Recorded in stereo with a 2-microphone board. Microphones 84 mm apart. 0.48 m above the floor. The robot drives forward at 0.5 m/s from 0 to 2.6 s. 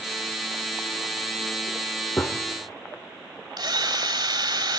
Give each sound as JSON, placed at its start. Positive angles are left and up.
{"t": 2.2, "sound": "a gunshot", "side_deg": 25, "distance_m": 1.6}
{"t": 3.6, "sound": "a drill", "side_deg": -65, "distance_m": 2.5}